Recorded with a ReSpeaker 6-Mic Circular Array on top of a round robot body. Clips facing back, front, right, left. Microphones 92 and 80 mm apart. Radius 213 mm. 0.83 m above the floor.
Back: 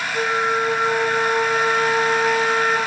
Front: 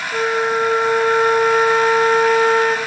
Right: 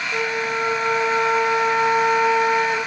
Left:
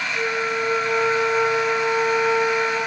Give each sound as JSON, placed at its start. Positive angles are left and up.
{"t": 0.1, "sound": "a flute", "azimuth_deg": -50, "distance_m": 1.9}